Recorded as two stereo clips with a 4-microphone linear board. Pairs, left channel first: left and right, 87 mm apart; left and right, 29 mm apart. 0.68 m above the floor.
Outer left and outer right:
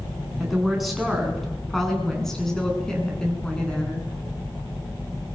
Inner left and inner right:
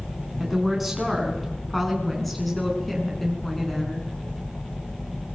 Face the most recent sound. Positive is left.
turn(degrees=10)  # may be behind; listen again after turning